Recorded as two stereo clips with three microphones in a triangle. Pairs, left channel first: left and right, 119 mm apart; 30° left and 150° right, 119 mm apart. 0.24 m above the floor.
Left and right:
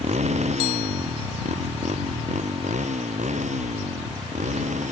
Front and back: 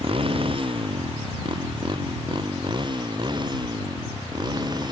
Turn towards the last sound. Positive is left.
turn(degrees=-95)